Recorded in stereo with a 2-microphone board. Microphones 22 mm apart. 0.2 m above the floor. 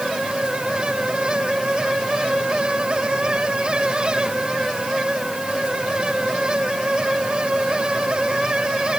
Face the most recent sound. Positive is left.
No sound to turn to.